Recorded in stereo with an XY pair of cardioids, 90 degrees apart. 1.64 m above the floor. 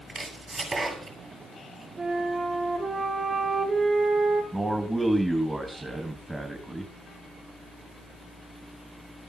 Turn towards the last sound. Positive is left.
turn(degrees=-20)